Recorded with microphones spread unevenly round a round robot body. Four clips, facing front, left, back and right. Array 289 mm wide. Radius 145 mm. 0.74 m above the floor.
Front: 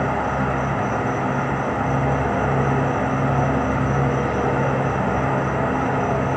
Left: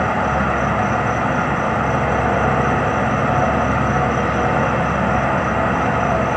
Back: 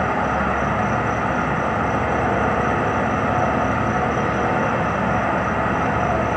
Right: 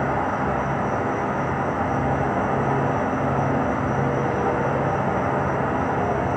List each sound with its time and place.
0.0 s an insect: 110° left, 2.5 m